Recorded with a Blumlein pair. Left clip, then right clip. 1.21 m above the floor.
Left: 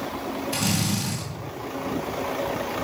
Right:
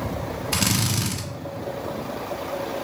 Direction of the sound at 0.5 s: 30° right.